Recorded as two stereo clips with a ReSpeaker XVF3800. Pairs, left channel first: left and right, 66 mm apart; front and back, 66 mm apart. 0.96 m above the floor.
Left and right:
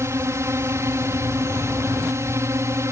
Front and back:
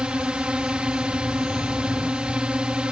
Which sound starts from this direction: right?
A drone, at 0.0 s.